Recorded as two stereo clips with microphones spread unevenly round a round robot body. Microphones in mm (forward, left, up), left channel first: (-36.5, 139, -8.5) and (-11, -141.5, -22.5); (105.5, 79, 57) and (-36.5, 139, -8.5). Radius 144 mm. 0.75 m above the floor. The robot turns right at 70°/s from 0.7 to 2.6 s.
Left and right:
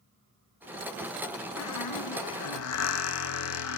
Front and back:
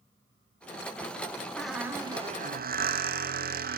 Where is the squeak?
55° left, 3 m; by 3.8 s 130° left, 3 m.